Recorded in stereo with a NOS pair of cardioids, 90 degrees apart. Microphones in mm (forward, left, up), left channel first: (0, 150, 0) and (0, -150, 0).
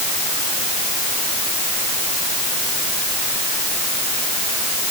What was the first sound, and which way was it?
Only background noise.